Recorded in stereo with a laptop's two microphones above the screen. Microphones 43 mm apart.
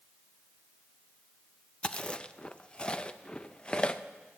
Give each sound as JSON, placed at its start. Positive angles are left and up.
{"t": 1.8, "sound": "chewing", "side_deg": 20, "distance_m": 0.6}